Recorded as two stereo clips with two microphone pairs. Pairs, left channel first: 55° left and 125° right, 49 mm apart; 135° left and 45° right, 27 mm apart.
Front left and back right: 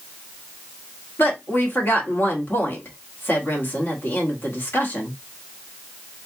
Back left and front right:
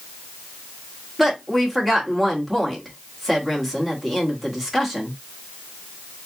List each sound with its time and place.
1.2 s a woman speaking: 50° left, 1.6 m